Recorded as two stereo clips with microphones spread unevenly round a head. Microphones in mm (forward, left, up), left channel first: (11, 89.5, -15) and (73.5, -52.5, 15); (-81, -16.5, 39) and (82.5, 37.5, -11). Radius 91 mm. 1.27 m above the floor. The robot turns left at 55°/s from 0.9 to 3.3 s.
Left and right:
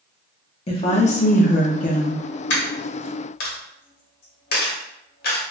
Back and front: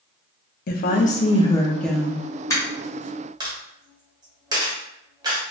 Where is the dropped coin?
140° left, 1.1 m; by 5.4 s 95° left, 1.1 m.